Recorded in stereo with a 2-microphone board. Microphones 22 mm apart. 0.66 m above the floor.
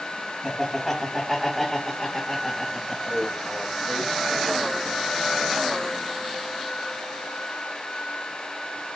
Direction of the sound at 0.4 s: 5° left (ahead or behind).